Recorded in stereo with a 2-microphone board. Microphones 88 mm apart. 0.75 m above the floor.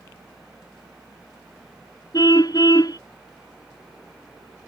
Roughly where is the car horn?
Left.